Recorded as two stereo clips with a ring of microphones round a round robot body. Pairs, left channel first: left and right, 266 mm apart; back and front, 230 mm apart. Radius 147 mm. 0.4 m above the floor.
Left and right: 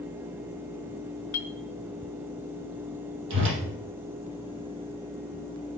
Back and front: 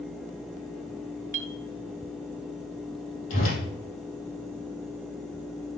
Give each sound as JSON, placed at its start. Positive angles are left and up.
{"t": 1.3, "sound": "a clink", "azimuth_deg": 55, "distance_m": 1.4}
{"t": 3.3, "sound": "a whoosh", "azimuth_deg": -140, "distance_m": 3.5}